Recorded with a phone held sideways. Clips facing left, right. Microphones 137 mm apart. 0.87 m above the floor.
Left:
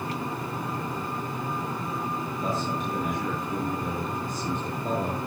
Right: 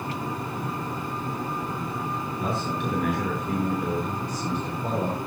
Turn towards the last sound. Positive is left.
turn(degrees=-80)